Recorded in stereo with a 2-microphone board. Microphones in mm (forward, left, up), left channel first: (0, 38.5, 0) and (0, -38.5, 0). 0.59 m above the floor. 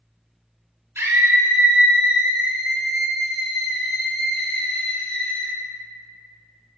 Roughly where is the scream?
Right.